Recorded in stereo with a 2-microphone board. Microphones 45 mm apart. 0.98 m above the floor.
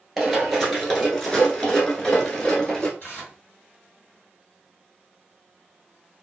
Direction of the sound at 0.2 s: 5° right (ahead or behind).